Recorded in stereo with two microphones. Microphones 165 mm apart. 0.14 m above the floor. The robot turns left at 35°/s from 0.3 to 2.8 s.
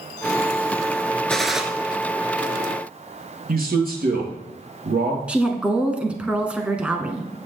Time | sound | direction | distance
1.3 | a gunshot | 5° left (ahead or behind) | 1.2 m
3.5 | a man speaking | 65° right (ahead or behind) | 3 m
5.3 | a woman speaking | 5° right (ahead or behind) | 1.2 m